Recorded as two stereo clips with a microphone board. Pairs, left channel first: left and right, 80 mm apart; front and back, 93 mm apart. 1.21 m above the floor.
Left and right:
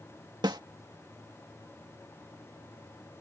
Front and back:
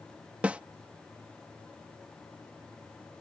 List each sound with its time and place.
0.4 s a snare drum: 105° right